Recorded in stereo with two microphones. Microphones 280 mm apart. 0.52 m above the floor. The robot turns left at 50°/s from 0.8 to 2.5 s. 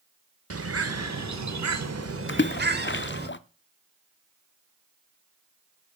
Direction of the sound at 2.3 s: 45° left (ahead or behind).